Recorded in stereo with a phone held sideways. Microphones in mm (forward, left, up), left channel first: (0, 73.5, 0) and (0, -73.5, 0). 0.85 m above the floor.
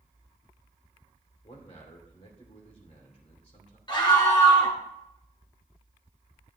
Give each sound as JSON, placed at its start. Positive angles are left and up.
{"t": 1.4, "sound": "a man speaking", "side_deg": 45, "distance_m": 3.0}
{"t": 3.9, "sound": "a scream", "side_deg": 30, "distance_m": 2.5}